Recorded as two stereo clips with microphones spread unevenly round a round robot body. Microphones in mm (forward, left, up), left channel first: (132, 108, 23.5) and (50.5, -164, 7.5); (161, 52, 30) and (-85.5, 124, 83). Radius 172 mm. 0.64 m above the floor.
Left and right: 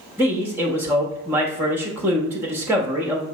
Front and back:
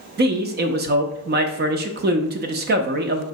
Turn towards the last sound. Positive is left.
turn(degrees=-175)